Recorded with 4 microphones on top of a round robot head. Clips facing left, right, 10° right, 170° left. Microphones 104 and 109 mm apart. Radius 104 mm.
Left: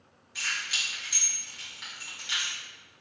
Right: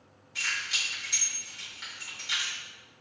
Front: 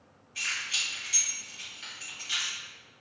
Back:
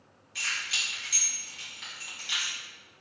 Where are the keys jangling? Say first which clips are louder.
Even, back 1 dB; 175° left, 1.7 m.